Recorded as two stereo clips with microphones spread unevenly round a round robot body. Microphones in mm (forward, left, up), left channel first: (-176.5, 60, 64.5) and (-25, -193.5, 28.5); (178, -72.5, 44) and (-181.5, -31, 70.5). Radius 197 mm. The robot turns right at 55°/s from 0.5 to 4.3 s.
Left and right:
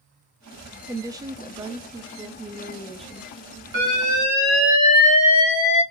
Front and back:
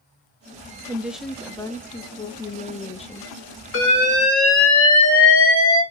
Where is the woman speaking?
105° right, 0.5 m; by 3.3 s 30° left, 0.5 m.